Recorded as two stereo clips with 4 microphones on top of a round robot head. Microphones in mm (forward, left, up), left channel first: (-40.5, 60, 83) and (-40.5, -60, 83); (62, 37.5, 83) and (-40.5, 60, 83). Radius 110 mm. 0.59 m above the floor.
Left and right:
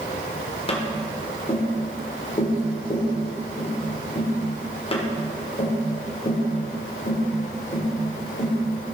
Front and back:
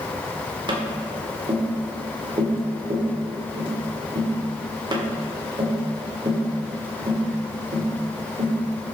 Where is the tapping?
125° left, 1.6 m.